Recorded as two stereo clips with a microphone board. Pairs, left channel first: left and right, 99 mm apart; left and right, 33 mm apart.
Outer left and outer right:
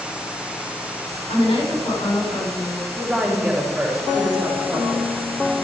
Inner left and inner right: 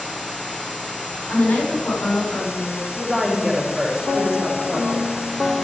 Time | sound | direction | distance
1.3 | a woman speaking | 85° left | 5 m
3.0 | a woman speaking | centre (ahead or behind) | 4 m